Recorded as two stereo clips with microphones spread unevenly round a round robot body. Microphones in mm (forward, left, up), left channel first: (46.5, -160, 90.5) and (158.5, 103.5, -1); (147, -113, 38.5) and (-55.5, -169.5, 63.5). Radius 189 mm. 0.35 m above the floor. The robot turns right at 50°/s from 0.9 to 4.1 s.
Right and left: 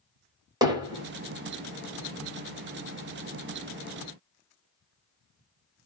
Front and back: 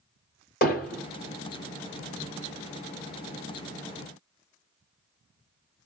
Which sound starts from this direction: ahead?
Hammering, at 0.6 s.